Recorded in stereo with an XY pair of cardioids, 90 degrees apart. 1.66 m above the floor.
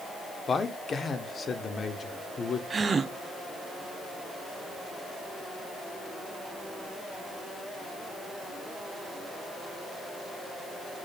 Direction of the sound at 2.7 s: 40° right.